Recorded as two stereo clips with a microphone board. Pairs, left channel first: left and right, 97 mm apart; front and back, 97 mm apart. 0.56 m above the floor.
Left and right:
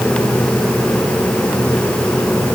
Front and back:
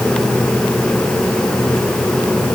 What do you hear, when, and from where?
Only background noise.